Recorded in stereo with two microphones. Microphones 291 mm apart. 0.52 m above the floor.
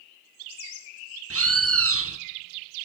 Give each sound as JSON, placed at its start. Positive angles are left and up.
{"t": 1.3, "sound": "a bird", "side_deg": -50, "distance_m": 0.6}